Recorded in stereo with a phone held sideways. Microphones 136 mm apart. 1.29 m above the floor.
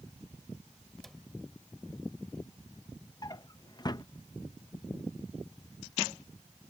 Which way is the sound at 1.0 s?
5° left (ahead or behind).